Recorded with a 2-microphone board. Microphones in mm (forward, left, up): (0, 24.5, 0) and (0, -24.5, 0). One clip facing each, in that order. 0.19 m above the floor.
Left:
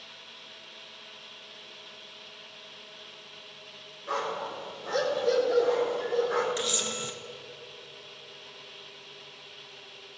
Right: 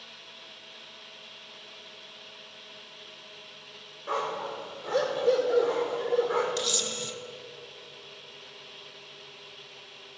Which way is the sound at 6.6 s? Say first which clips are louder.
Even; 20° left (ahead or behind).